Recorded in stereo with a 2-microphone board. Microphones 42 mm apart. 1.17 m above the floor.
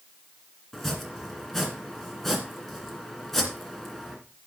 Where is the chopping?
5° left (ahead or behind), 2 m.